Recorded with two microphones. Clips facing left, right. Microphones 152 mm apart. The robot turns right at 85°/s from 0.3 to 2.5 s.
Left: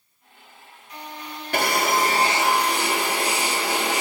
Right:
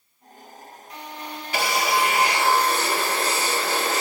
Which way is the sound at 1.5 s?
80° left.